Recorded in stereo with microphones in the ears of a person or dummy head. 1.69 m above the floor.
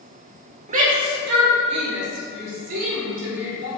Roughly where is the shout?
Right.